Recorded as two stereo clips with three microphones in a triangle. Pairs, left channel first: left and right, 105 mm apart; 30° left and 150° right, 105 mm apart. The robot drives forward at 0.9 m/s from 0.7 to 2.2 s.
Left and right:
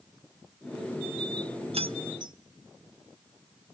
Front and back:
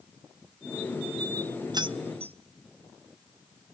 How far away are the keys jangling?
About 0.6 m.